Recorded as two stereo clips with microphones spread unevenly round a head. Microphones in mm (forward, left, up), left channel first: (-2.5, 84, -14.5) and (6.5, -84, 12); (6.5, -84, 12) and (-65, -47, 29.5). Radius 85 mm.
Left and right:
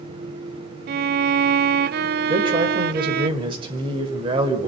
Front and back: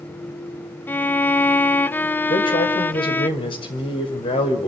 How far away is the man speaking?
About 4.5 m.